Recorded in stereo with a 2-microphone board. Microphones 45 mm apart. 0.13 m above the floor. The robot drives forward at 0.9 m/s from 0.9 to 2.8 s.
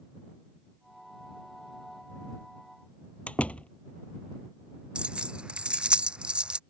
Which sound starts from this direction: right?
Keys jangling, at 5.0 s.